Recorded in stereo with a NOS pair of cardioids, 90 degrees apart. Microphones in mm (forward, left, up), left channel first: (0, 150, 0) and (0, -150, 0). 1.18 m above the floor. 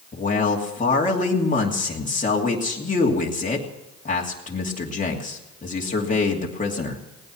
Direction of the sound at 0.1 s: 25° left.